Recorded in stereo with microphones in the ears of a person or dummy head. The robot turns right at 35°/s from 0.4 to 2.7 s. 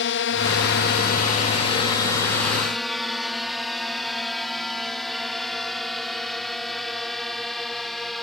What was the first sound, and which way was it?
A drone, 60° left (ahead or behind).